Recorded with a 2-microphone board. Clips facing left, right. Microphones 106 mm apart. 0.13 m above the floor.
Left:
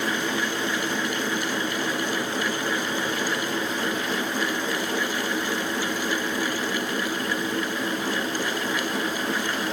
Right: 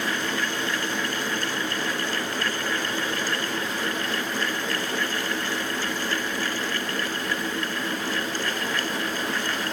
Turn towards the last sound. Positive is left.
No sound to turn to.